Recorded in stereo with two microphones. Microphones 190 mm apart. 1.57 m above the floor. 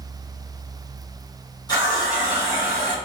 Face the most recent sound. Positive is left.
turn(degrees=20)  # may be behind; listen again after turning